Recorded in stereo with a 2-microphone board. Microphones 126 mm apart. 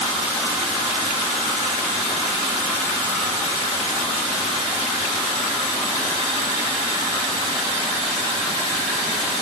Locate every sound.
Only background noise.